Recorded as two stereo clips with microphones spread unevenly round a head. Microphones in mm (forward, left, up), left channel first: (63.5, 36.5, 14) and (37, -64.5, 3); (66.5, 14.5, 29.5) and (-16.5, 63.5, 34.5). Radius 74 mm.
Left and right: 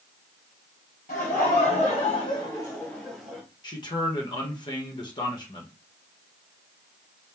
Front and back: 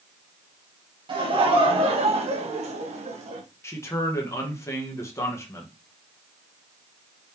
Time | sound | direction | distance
1.1 | laughter | 115° left | 2.5 m
3.6 | a man speaking | 30° left | 1.4 m